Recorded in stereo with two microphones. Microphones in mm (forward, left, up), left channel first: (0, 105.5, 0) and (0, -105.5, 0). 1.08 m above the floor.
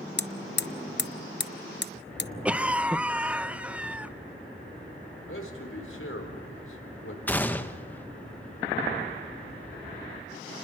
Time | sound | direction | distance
0.2 | hammering | 55° left (ahead or behind) | 0.5 m
2.5 | a cough | 5° right (ahead or behind) | 0.7 m
5.3 | a man speaking | 80° left | 4 m
7.3 | a gunshot | 10° left (ahead or behind) | 1.1 m